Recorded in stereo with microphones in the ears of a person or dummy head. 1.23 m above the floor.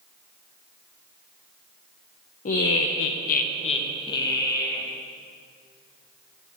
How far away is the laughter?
About 0.7 m.